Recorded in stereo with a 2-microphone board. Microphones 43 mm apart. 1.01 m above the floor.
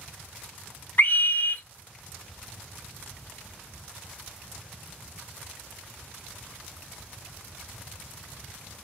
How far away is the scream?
About 0.5 m.